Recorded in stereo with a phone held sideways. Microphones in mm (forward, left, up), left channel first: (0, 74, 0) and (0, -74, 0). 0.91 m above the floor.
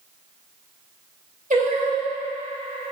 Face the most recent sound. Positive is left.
turn(degrees=-60)  # may be behind; listen again after turning